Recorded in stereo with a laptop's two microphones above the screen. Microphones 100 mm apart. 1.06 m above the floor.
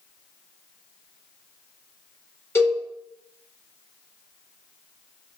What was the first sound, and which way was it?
A cowbell, 25° left (ahead or behind).